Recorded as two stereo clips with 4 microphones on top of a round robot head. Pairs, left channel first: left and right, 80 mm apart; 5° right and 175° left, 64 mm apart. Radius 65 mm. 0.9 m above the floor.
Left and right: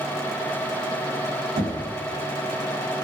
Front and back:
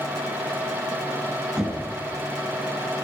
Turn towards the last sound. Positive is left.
turn(degrees=-105)